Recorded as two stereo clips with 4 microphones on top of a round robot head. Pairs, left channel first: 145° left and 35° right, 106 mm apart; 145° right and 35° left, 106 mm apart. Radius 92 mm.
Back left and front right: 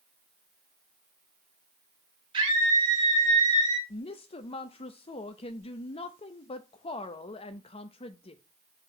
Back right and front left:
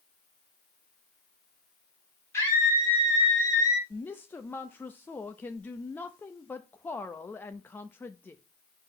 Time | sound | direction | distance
2.3 | a scream | 80° right | 4 m
3.9 | a woman speaking | 145° left | 0.6 m